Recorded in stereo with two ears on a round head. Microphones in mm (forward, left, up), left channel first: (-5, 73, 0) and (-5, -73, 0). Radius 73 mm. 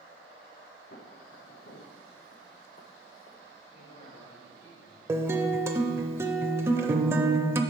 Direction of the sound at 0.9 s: 65° left (ahead or behind).